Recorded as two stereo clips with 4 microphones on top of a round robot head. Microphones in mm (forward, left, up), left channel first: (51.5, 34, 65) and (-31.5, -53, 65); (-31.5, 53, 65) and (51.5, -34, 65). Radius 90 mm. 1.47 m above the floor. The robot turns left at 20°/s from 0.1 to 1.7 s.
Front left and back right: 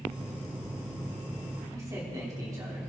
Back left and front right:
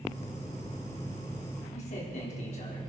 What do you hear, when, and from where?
1.7 s a man speaking: 160° left, 4 m